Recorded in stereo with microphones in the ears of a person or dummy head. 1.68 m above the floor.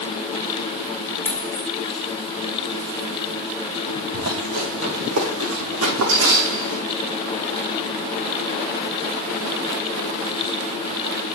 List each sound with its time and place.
1.2 s a dropped coin: 15° left (ahead or behind), 2.5 m
4.1 s running footsteps: 75° right (ahead or behind), 7 m